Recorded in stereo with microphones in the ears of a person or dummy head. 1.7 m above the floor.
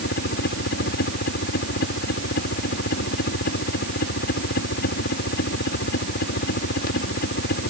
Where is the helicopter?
60° left (ahead or behind).